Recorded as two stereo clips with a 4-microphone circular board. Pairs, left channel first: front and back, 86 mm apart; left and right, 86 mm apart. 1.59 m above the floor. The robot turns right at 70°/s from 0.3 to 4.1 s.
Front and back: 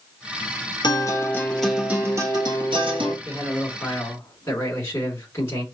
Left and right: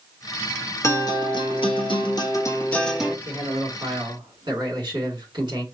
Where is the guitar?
35° left, 1.0 m; by 3.1 s 165° right, 1.0 m.